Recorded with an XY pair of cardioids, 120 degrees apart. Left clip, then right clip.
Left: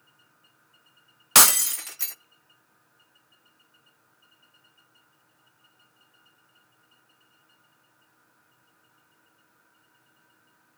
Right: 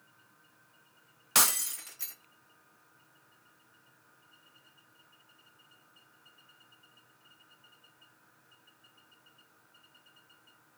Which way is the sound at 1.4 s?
50° left.